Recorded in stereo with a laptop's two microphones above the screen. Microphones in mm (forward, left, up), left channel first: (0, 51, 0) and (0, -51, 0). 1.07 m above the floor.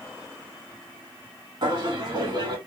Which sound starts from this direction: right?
Laughter, at 1.6 s.